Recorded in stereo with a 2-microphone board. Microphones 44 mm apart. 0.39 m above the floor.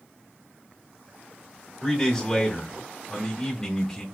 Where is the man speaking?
5° left (ahead or behind), 1.0 m.